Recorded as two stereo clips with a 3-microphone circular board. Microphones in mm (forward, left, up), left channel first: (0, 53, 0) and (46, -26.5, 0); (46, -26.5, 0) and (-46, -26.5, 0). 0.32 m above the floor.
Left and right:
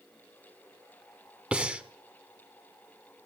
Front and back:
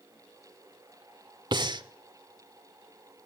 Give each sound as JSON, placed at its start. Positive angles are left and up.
{"t": 1.5, "sound": "breathing", "azimuth_deg": -140, "distance_m": 0.5}